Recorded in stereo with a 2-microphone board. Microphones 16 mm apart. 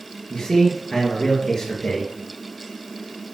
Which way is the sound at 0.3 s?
55° left (ahead or behind).